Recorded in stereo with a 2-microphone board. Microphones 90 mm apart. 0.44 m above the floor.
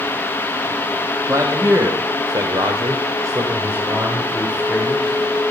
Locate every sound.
1.3 s a man speaking: 30° right (ahead or behind), 2 m; by 5.5 s 5° right (ahead or behind), 3.5 m